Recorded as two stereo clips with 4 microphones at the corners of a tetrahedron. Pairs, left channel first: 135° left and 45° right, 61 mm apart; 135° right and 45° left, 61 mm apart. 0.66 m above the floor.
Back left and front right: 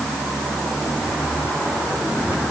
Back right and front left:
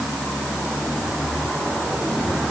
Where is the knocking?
No knocking in this recording.